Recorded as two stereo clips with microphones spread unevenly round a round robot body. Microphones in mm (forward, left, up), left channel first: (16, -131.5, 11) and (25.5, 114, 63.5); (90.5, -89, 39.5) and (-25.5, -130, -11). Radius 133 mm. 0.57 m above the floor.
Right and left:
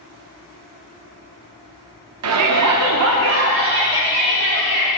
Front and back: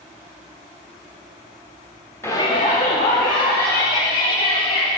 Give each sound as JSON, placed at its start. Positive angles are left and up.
{"t": 2.2, "sound": "a shout", "azimuth_deg": 110, "distance_m": 1.1}